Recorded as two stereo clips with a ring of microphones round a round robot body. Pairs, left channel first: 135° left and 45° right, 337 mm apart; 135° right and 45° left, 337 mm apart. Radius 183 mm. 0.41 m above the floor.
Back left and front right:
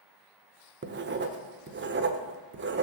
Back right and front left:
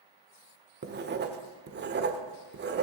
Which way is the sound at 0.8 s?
Straight ahead.